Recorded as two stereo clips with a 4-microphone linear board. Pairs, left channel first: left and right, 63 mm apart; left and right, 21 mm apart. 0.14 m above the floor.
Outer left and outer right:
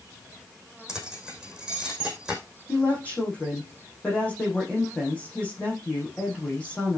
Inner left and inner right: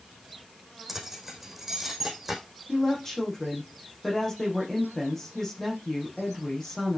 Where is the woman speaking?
20° left (ahead or behind), 6.5 m.